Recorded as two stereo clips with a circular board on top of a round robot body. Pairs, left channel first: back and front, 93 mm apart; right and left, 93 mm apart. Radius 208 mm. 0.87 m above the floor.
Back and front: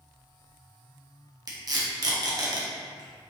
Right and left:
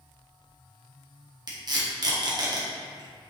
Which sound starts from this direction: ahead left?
Tape being pulled, at 1.5 s.